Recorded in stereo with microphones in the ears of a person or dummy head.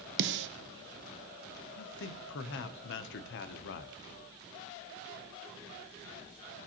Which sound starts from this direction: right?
A snare drum, at 0.2 s.